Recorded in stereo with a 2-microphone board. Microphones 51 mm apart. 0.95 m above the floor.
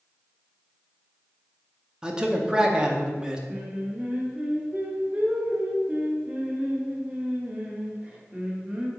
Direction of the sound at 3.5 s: 25° right (ahead or behind).